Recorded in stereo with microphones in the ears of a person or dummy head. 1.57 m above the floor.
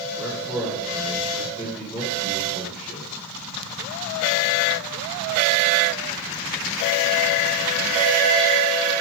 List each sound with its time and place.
0.2 s a man speaking: 5° right (ahead or behind), 1.2 m